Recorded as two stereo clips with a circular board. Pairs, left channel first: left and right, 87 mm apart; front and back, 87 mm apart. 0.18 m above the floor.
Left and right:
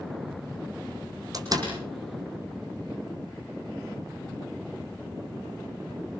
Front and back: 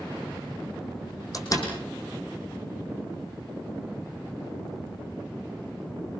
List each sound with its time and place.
1.3 s a door slam: 45° right, 6.5 m